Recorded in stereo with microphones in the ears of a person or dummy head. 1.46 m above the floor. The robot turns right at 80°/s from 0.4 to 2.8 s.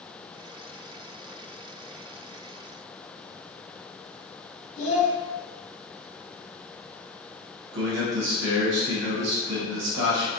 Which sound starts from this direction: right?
A man speaking, at 7.7 s.